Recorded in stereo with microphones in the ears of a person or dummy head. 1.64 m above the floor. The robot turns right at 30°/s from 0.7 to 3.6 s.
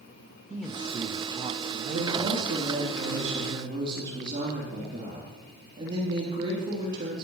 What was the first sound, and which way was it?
A man speaking, straight behind.